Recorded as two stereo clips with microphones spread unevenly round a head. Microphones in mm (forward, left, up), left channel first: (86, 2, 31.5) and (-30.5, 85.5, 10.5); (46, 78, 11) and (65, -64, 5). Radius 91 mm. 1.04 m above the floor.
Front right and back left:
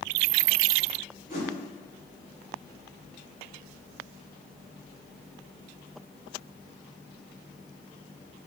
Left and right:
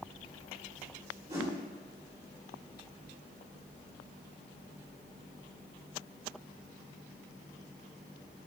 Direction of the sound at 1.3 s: 150° right.